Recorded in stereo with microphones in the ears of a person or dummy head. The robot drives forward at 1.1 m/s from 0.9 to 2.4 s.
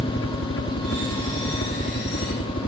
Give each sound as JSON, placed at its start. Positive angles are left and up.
{"t": 0.0, "sound": "a helicopter", "side_deg": 60}